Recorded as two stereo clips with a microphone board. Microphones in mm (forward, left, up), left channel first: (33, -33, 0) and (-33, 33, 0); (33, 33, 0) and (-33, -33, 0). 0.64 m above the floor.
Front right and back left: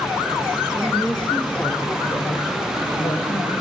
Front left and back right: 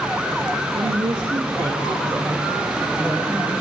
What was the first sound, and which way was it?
A woman speaking, 135° right.